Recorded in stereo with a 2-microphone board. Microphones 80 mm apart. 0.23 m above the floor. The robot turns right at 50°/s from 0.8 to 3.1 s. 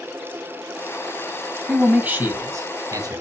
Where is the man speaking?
170° right, 1.7 m; by 3.2 s 95° right, 1.7 m.